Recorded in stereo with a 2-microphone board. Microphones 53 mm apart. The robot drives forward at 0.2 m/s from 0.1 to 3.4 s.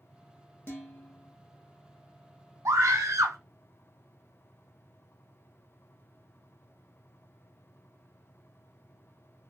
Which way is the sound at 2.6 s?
75° right (ahead or behind).